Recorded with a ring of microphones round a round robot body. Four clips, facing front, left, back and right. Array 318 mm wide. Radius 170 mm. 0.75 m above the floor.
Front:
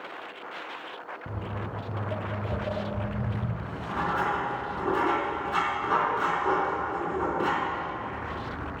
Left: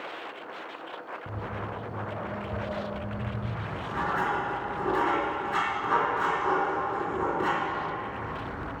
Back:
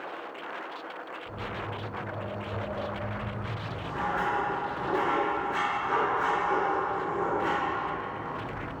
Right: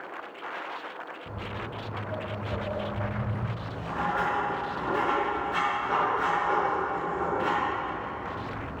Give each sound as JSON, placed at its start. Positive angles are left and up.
{"t": 1.3, "sound": "footsteps", "azimuth_deg": 20, "distance_m": 2.0}
{"t": 3.6, "sound": "writing", "azimuth_deg": 30, "distance_m": 4.5}